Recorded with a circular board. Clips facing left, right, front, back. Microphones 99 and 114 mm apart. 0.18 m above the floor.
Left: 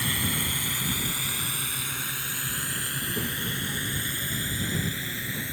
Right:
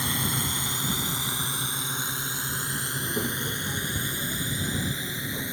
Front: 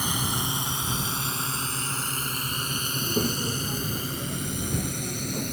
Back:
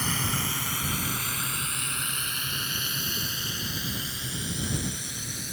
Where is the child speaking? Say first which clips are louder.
Right 3 dB, front 10 dB; 20° right.